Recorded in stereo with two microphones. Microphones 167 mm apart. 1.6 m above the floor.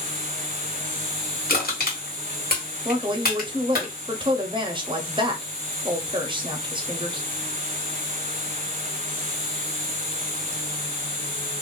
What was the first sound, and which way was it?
An insect, 35° left (ahead or behind).